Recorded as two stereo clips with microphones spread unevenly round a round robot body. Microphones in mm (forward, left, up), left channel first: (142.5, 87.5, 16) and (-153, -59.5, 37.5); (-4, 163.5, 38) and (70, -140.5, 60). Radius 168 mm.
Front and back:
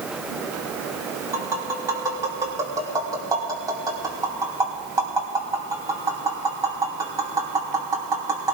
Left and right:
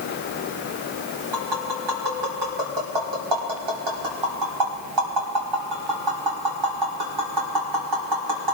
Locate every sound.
1.3 s tapping: 75° right, 3.5 m